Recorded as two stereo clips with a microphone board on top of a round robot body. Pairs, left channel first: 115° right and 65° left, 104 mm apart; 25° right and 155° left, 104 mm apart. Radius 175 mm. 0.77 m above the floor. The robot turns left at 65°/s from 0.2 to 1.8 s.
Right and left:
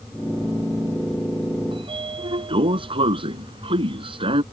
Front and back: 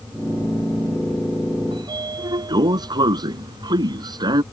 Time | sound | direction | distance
1.7 | a sliding door | 110° left | ?